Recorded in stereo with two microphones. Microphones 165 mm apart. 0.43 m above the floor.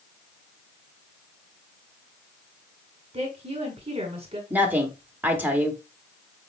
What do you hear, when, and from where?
3.1 s a woman speaking: 35° right (ahead or behind), 1.3 m
4.5 s a woman speaking: 10° right (ahead or behind), 0.9 m